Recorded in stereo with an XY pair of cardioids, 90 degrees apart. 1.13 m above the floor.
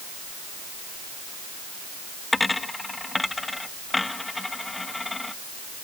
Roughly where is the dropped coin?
Ahead.